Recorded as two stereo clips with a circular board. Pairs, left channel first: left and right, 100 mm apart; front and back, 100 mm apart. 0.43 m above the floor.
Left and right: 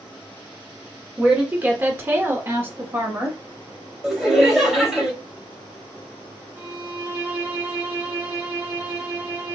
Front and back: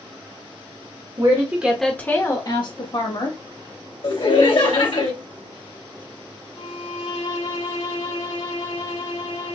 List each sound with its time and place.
1.2 s a woman speaking: 165° right, 1.1 m; by 3.4 s 20° right, 2 m
4.0 s laughter: 5° right, 2 m
6.6 s a violin: 20° right, 3 m